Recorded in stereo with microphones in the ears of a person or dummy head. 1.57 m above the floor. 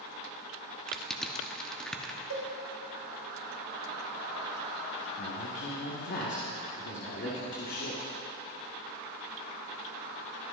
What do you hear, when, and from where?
0.9 s crushing: 10° left (ahead or behind), 1.0 m
2.3 s a cowbell: 55° right (ahead or behind), 1.9 m
5.2 s a man speaking: 55° left (ahead or behind), 1.7 m